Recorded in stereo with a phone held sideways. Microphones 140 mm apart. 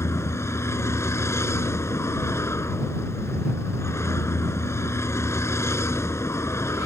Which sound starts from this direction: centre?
A vehicle, at 0.0 s.